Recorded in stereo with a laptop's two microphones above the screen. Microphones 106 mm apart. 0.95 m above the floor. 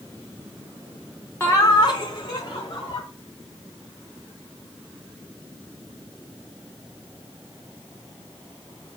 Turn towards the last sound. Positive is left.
turn(degrees=40)  # may be behind; listen again after turning